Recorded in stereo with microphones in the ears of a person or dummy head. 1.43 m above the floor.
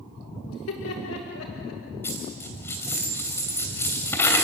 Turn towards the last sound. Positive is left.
turn(degrees=10)  # may be behind; listen again after turning